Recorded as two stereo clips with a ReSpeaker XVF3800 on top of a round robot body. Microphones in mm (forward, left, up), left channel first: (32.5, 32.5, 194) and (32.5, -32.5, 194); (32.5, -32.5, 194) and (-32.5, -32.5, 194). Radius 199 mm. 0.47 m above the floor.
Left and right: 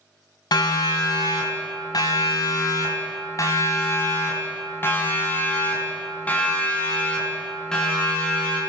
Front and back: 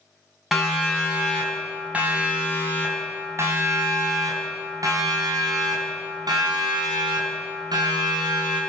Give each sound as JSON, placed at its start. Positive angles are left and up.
{"t": 0.5, "sound": "a siren", "azimuth_deg": 90, "distance_m": 5.5}